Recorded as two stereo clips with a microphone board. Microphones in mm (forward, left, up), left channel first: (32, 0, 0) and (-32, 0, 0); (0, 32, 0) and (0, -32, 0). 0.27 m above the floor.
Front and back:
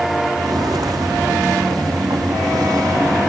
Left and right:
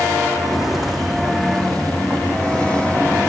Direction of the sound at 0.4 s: 175° right.